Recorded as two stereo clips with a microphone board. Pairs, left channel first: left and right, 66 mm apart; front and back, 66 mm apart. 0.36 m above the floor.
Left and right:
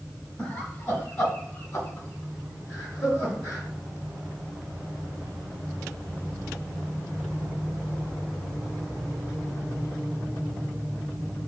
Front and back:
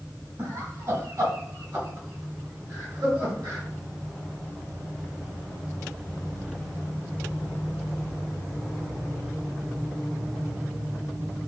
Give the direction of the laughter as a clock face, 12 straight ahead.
7 o'clock.